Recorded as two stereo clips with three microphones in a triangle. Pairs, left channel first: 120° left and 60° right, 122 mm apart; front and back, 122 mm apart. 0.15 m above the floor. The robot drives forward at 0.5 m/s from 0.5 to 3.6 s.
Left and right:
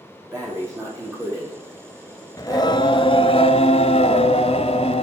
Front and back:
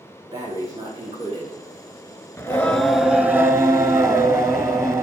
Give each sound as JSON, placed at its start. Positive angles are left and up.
{"t": 0.3, "sound": "breathing", "azimuth_deg": -120, "distance_m": 6.0}
{"t": 2.4, "sound": "singing", "azimuth_deg": 70, "distance_m": 0.9}